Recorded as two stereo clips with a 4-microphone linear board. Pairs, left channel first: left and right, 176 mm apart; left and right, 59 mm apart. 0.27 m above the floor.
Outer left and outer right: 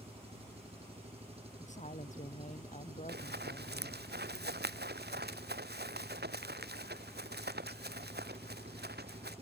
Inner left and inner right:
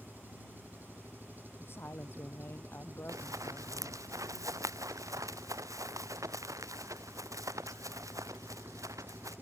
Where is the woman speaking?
45° left (ahead or behind).